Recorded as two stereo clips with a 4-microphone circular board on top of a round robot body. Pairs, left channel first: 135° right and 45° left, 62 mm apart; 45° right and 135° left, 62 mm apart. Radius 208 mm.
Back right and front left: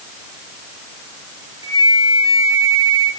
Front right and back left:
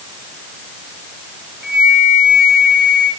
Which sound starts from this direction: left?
A flute, at 1.6 s.